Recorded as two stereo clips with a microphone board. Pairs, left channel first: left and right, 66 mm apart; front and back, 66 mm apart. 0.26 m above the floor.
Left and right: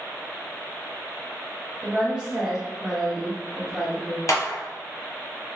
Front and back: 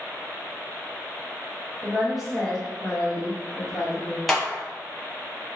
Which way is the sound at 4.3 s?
85° left.